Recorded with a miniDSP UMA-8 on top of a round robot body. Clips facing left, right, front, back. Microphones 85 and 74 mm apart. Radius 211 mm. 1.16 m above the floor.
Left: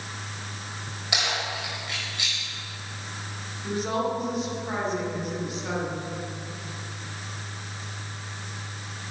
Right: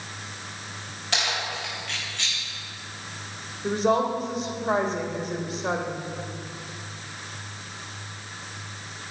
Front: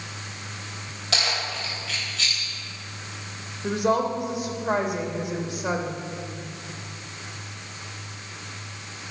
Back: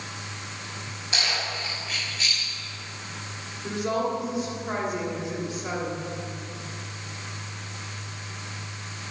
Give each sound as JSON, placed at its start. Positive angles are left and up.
{"t": 1.1, "sound": "keys jangling", "azimuth_deg": 10, "distance_m": 4.0}
{"t": 3.6, "sound": "a woman speaking", "azimuth_deg": -35, "distance_m": 3.0}